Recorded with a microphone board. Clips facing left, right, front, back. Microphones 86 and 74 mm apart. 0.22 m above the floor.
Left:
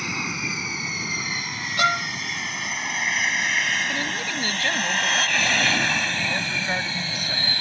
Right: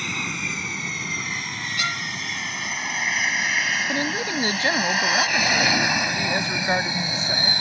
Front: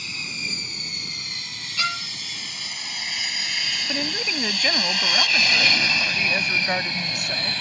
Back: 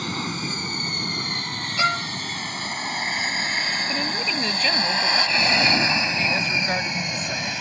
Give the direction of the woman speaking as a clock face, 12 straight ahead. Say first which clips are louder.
Right 3 dB, back 2 dB; 3 o'clock.